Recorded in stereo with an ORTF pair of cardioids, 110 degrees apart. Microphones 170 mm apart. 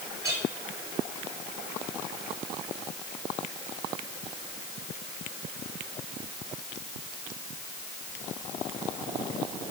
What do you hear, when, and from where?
0.2 s a clink: 15° right, 6.5 m